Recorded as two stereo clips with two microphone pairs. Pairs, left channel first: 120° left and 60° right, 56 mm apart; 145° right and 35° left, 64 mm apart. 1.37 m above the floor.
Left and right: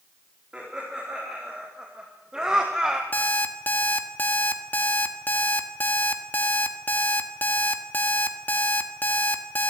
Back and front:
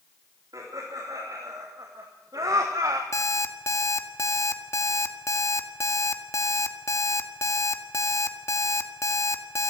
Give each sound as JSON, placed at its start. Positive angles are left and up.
{"t": 0.5, "sound": "laughter", "azimuth_deg": 15, "distance_m": 4.0}
{"t": 3.1, "sound": "an alarm clock", "azimuth_deg": 175, "distance_m": 1.6}